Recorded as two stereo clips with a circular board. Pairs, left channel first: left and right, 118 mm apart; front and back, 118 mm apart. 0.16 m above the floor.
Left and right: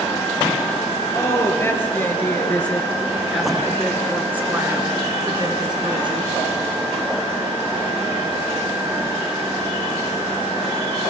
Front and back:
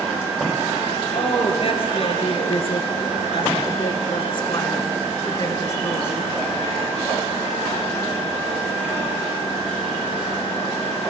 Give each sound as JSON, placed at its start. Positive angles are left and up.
{"t": 1.1, "sound": "a woman speaking", "azimuth_deg": 30, "distance_m": 3.0}